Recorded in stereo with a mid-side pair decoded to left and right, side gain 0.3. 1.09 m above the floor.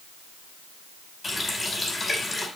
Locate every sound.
1.2 s a running tap: 40° left, 4.5 m